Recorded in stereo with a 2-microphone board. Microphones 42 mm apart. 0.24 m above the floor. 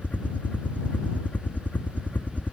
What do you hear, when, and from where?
0.0 s a helicopter: 40° left (ahead or behind)